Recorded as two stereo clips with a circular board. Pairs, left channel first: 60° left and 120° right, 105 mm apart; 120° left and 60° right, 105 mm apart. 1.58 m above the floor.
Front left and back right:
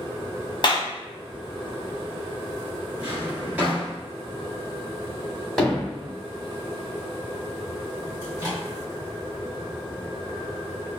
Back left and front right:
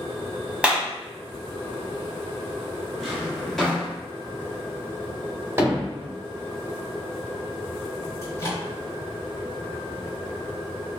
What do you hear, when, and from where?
0.6 s a clap: 20° left, 0.7 m
3.0 s a drawer: 160° right, 1.1 m
5.6 s hammering: 20° right, 1.2 m
8.2 s a microwave: 175° left, 1.6 m